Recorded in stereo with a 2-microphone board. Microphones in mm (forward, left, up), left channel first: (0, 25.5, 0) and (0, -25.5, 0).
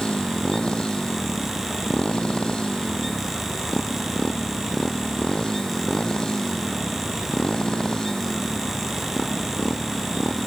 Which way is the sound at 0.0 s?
20° left (ahead or behind).